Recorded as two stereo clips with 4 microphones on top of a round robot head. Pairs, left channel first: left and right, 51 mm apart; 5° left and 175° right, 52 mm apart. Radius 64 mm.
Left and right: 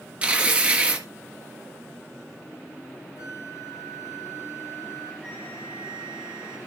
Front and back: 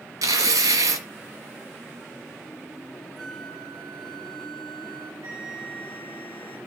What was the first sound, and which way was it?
Tearing paper, 160° right.